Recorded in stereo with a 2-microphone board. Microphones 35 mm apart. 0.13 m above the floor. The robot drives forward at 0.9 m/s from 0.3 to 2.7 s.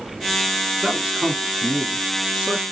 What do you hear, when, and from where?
0.8 s a man speaking: 20° right (ahead or behind), 1.2 m; by 2.6 s 15° right (ahead or behind), 1.7 m